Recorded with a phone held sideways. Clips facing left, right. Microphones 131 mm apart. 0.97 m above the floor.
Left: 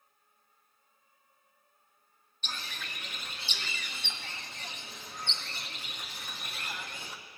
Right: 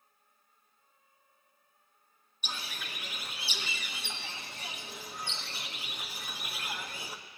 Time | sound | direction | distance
2.4 | a bird | 10° right (ahead or behind) | 0.9 m